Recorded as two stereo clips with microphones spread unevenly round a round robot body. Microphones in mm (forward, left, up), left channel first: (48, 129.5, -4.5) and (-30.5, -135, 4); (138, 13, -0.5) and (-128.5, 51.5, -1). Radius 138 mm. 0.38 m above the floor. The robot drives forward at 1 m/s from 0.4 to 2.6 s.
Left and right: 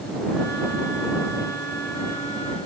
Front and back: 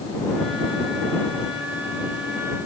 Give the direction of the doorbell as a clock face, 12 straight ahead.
No doorbell in this recording.